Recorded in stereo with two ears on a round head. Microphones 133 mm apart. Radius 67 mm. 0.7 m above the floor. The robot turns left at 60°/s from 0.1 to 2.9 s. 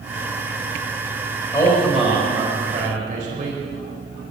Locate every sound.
1.5 s a man speaking: 25° left, 4 m; by 3.6 s 60° right, 4 m